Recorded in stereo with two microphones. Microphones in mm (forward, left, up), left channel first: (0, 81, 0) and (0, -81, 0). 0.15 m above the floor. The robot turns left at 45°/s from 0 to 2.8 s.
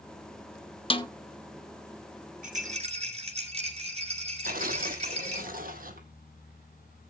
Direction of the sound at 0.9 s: 35° left (ahead or behind).